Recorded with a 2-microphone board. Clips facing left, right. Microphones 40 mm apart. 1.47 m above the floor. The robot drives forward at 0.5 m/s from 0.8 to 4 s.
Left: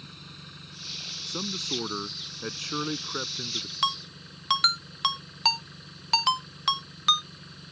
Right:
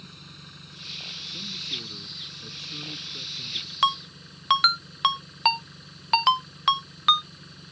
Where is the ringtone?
20° right (ahead or behind).